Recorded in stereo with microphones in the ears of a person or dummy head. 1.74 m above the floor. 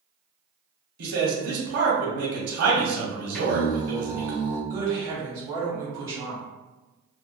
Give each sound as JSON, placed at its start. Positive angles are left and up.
{"t": 1.0, "sound": "a man speaking", "side_deg": -70, "distance_m": 0.9}
{"t": 3.3, "sound": "singing", "side_deg": 10, "distance_m": 1.7}
{"t": 4.7, "sound": "a woman speaking", "side_deg": -20, "distance_m": 1.0}